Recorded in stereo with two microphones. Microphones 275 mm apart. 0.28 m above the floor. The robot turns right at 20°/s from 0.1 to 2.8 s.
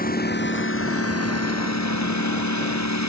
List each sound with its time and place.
0.0 s a lawn mower: 30° left (ahead or behind); by 3.1 s 80° left